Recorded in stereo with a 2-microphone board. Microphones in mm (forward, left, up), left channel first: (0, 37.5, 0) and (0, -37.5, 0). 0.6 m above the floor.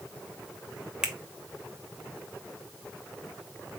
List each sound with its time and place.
1.0 s a finger snap: 10° right (ahead or behind), 0.8 m